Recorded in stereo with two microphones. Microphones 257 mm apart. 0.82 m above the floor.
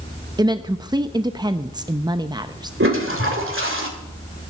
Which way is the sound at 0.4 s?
15° right (ahead or behind).